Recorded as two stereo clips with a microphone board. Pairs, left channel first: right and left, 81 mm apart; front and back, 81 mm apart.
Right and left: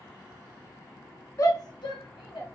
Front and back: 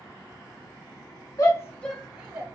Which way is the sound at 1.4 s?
40° right.